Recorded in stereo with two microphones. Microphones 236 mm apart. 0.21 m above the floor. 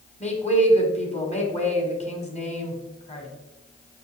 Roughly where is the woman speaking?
Left.